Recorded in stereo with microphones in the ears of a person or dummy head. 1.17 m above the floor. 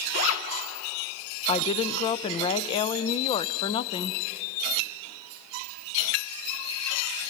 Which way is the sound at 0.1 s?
75° left (ahead or behind).